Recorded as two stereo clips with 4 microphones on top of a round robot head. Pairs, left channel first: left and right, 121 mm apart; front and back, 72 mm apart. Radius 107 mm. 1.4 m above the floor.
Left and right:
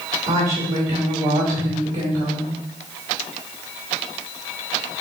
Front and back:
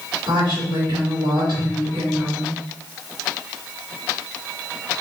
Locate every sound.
0.3 s a woman speaking: 155° right, 2 m